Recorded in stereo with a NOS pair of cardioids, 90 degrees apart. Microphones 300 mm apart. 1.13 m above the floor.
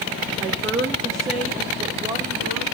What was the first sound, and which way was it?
A woman speaking, 40° right.